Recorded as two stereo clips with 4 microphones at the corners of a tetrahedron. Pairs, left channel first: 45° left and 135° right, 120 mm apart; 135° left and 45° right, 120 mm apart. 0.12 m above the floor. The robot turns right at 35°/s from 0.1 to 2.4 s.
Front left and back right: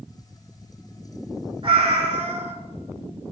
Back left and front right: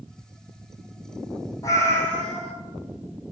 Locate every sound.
1.6 s a cat meowing: 170° right, 1.2 m; by 2.5 s 140° right, 1.2 m